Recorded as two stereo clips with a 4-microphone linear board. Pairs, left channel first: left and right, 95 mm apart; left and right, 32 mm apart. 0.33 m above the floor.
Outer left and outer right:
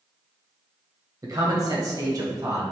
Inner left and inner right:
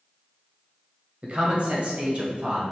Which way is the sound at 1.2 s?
45° right (ahead or behind).